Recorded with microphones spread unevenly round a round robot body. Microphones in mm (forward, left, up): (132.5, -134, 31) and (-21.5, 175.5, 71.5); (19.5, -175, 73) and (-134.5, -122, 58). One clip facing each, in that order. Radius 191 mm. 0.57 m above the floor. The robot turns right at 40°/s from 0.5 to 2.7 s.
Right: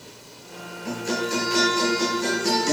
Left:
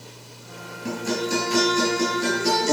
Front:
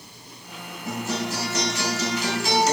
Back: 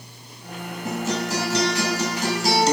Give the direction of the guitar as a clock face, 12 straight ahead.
7 o'clock.